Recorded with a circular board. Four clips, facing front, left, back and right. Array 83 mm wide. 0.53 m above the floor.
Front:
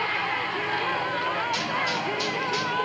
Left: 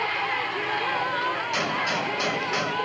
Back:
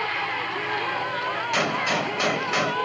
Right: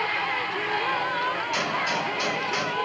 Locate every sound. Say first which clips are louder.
1.5 s a gunshot: even, back 3 dB; 175° left, 1.1 m